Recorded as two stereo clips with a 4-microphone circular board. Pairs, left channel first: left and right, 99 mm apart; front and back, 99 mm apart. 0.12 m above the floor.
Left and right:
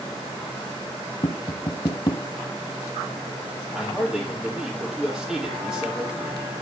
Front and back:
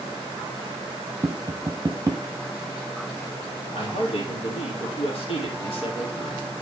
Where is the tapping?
125° left, 0.9 m.